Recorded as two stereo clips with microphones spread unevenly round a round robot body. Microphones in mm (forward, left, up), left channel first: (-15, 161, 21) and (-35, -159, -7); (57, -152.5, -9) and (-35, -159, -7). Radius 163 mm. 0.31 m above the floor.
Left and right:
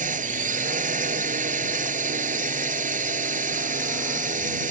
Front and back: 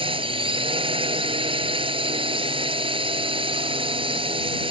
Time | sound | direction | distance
0.0 | a drone | 160° right | ?